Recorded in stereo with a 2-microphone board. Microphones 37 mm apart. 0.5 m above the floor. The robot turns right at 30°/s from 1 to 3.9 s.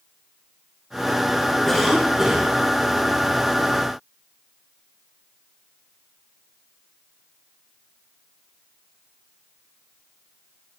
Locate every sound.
1.7 s a cough: 10° left (ahead or behind), 3.5 m; by 2.5 s 15° right (ahead or behind), 3.5 m